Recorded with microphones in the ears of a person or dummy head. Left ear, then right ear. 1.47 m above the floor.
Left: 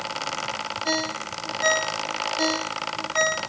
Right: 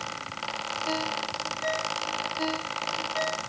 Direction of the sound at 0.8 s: 50° left (ahead or behind).